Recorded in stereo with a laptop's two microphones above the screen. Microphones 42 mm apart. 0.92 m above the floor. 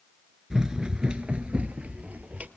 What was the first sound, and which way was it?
Running footsteps, 15° right (ahead or behind).